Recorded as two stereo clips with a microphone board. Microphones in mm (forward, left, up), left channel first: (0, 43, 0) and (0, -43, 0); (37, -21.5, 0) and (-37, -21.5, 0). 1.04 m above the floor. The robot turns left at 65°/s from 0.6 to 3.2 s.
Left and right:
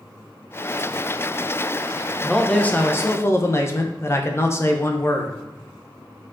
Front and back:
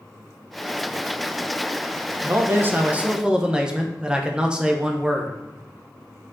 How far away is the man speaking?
About 0.8 m.